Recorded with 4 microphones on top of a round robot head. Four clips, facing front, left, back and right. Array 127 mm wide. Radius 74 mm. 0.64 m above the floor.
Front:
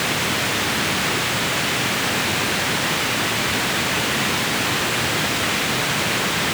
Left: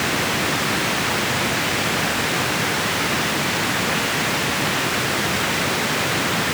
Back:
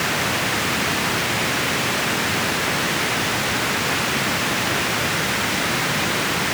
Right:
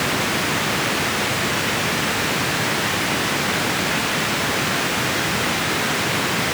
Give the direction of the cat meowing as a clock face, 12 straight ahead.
No cat meowing in this recording.